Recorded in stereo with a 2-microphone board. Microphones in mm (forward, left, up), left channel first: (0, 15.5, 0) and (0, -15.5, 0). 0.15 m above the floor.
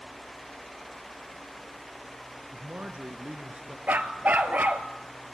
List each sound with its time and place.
2.5 s a man speaking: 50° right (ahead or behind), 1.8 m
3.9 s a dog barking: 65° right (ahead or behind), 1.0 m